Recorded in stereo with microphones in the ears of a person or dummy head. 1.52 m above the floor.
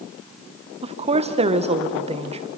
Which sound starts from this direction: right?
A woman speaking, at 0.8 s.